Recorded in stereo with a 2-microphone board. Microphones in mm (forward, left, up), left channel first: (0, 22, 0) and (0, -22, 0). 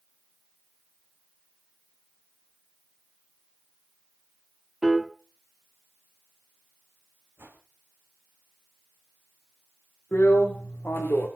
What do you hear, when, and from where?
4.8 s a piano: centre (ahead or behind), 1.0 m
7.4 s a whoosh: 65° right (ahead or behind), 3.5 m
10.1 s a drill: 60° left (ahead or behind), 4.5 m